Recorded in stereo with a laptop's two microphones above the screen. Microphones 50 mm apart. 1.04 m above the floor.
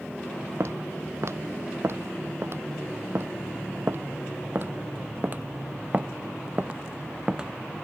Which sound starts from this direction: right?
Footsteps, at 0.6 s.